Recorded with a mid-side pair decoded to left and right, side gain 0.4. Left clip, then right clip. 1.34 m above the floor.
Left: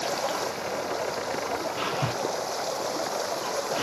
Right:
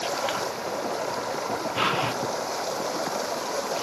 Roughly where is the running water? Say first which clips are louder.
Right 1 dB; ahead.